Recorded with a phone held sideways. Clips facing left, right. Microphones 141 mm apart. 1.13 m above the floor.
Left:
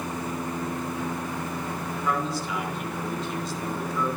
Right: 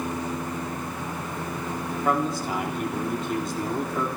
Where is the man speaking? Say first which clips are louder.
Right 4 dB; 50° right (ahead or behind), 3.5 m.